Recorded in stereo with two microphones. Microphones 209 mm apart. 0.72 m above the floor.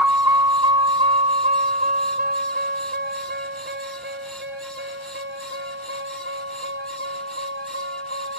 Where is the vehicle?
10° right (ahead or behind); by 8.4 s 70° right (ahead or behind).